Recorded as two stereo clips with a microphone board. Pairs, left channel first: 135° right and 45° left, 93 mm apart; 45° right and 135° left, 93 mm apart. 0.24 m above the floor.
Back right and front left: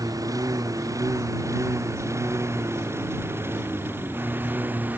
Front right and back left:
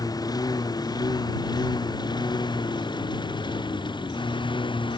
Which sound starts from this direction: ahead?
A lawn mower, at 0.0 s.